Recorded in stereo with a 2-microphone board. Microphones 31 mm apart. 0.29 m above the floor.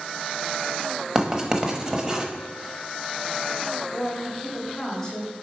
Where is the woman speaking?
20° left (ahead or behind), 1.5 m.